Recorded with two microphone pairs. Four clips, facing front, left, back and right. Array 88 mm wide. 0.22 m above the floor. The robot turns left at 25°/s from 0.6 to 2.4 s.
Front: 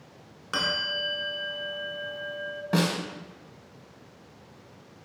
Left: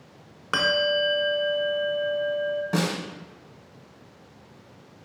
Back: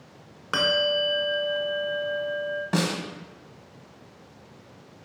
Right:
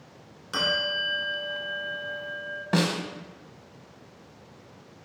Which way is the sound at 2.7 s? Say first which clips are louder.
Right 5 dB, front 2 dB; 105° right.